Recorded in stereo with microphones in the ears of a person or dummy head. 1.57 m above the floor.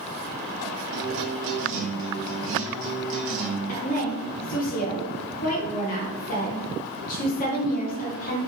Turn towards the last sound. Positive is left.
turn(degrees=45)  # may be behind; listen again after turning